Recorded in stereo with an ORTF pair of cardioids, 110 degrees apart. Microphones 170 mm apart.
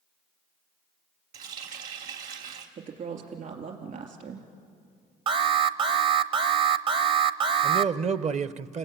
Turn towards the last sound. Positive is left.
turn(degrees=-40)